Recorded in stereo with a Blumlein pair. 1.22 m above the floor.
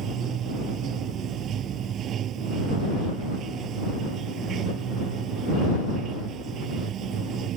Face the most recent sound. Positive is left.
turn(degrees=-30)